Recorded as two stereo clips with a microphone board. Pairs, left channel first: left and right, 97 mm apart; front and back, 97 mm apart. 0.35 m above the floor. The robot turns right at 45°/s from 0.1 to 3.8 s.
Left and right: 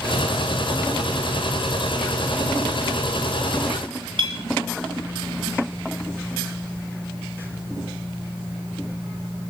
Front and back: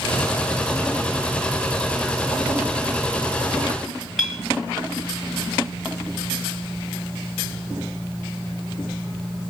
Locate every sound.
4.2 s a clink: 90° right, 1.8 m